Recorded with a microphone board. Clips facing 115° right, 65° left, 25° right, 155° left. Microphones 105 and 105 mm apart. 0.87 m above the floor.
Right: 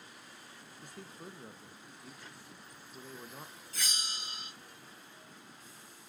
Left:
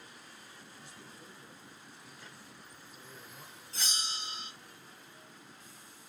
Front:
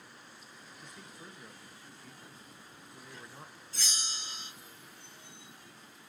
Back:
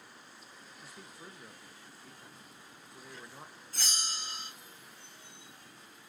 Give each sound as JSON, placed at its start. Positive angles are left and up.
{"t": 0.8, "sound": "a man speaking", "azimuth_deg": -120, "distance_m": 0.7}
{"t": 3.7, "sound": "a bell", "azimuth_deg": 125, "distance_m": 1.2}